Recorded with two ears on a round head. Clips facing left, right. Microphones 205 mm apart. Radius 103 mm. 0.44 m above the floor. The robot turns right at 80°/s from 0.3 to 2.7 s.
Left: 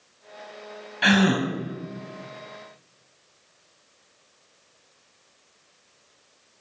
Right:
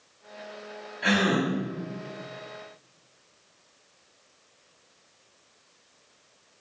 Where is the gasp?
95° left, 0.8 m; by 1.5 s 130° left, 0.8 m.